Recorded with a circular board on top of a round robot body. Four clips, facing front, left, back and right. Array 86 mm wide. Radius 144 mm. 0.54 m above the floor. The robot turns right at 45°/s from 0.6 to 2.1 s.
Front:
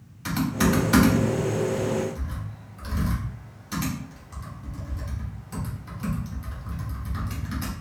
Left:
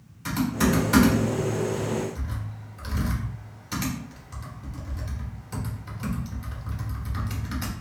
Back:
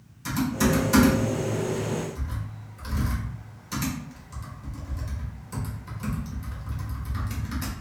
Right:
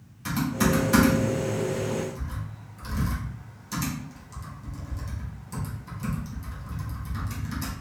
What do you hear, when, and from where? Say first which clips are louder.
0.2 s typing on a keyboard: left 1 dB, front 1 dB; straight ahead, 1.3 m; by 7.7 s 65° left, 1.3 m